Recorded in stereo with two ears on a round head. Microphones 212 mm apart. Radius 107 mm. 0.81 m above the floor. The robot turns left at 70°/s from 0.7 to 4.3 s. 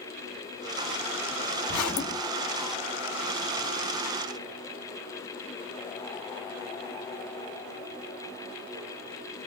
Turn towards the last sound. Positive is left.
turn(degrees=-85)